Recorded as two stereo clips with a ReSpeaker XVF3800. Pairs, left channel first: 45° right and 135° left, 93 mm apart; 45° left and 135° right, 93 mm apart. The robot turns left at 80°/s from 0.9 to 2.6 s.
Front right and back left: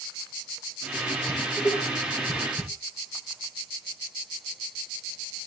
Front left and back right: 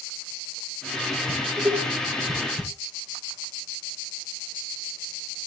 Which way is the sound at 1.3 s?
40° right.